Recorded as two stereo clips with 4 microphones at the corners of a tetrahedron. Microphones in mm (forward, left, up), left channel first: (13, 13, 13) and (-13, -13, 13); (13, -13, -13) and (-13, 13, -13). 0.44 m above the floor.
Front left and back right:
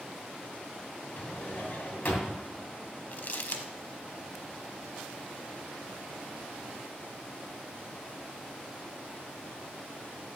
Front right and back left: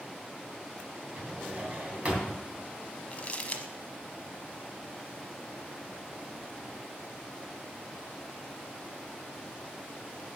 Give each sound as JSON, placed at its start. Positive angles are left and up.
{"t": 1.2, "sound": "a drawer", "azimuth_deg": 80, "distance_m": 2.5}
{"t": 3.1, "sound": "crumpling", "azimuth_deg": 10, "distance_m": 0.9}